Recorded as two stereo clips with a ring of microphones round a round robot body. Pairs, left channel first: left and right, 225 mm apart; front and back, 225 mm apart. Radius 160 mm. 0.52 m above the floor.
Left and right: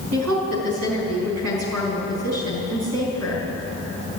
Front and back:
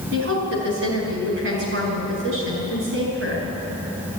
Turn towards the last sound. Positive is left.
turn(degrees=-125)